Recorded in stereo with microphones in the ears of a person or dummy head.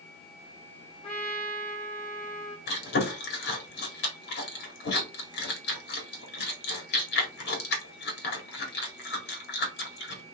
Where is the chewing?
70° left (ahead or behind), 2.0 m.